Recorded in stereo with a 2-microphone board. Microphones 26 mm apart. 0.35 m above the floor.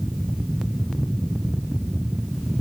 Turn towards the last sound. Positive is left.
No sound to turn to.